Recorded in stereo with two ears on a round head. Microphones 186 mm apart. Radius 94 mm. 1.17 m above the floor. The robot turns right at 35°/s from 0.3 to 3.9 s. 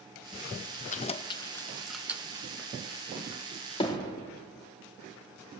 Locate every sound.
0.9 s keys jangling: 35° left (ahead or behind), 0.7 m; by 2.5 s 20° right (ahead or behind), 0.7 m
3.8 s hammering: 25° left (ahead or behind), 2.5 m